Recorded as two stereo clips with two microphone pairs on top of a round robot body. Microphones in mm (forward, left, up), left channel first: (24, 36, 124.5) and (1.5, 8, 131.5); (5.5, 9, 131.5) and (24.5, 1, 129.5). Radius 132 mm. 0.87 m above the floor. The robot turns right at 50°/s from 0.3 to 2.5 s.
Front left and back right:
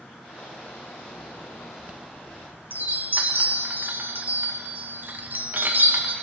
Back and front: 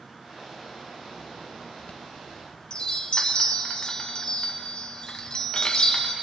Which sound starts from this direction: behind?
A chime, at 1.8 s.